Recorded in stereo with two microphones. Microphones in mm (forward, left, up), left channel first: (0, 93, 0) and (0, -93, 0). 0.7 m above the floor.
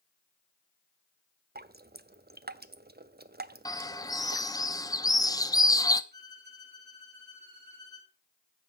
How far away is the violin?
About 7 m.